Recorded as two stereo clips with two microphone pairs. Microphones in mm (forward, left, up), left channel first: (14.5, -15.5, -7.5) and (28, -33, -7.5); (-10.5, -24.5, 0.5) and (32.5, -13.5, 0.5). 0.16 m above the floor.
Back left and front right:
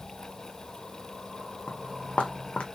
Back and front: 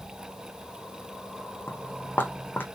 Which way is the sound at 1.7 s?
155° left.